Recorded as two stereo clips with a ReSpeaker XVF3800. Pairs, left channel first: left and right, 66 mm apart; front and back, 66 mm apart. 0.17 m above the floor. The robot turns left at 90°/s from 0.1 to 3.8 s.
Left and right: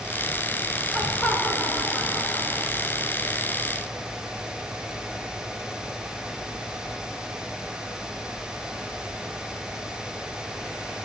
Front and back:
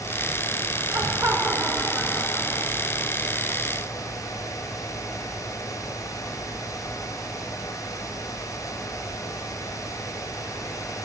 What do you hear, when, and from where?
0.9 s laughter: 175° right, 1.8 m; by 3.1 s 15° right, 1.8 m